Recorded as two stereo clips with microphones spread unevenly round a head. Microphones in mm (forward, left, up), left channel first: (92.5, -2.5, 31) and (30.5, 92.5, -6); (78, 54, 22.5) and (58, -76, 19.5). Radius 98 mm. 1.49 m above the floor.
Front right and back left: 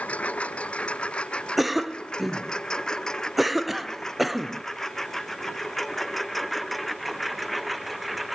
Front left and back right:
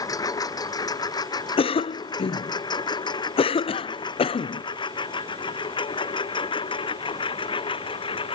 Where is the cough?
30° left.